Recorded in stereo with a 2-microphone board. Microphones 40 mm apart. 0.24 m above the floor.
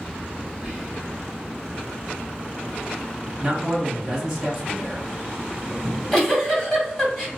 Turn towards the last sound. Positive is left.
turn(degrees=15)  # may be behind; listen again after turning